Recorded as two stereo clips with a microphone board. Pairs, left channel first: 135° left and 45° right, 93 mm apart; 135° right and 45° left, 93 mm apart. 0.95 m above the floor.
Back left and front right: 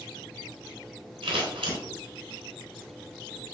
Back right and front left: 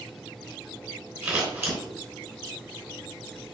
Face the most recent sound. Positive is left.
turn(degrees=-20)